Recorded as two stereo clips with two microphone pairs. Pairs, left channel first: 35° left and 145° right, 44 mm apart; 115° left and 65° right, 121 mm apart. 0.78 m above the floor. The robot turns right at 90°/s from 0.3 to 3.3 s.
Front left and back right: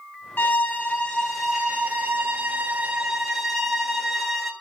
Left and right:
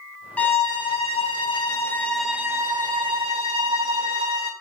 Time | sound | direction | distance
0.4 | a violin | 40° left | 1.2 m